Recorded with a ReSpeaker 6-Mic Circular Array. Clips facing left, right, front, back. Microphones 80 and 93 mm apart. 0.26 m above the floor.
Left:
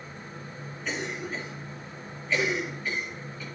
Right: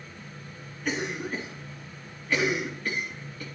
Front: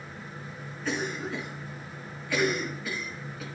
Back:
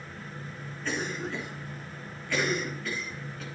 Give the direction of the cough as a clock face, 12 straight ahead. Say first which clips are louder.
Right 3 dB, front 1 dB; 3 o'clock.